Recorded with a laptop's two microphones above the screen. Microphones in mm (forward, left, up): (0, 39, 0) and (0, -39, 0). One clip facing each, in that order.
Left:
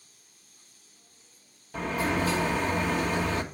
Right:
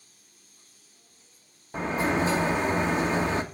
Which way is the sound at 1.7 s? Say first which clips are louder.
Right 2 dB; 30° right (ahead or behind).